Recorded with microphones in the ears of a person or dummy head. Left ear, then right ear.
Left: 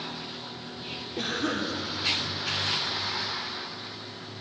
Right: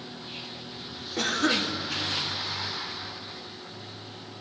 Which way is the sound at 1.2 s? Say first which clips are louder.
Right 5 dB; 50° right (ahead or behind).